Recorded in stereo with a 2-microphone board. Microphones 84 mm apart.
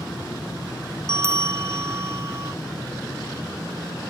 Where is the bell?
35° right (ahead or behind).